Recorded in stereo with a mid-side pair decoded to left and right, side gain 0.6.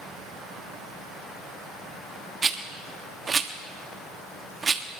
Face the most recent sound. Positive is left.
turn(degrees=-25)